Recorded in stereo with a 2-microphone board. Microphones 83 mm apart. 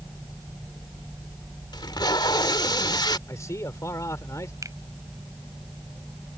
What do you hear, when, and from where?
1.7 s tape being pulled: 60° left (ahead or behind)
3.3 s a man speaking: 40° left (ahead or behind)
4.6 s a finger snap: 40° right (ahead or behind)